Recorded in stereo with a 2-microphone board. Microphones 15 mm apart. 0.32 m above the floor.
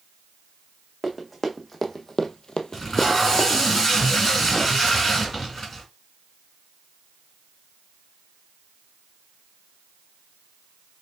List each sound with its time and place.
1.0 s running footsteps: 20° left (ahead or behind), 1.5 m; by 3.6 s 35° left (ahead or behind), 1.0 m
2.7 s tape being pulled: 40° left (ahead or behind), 3 m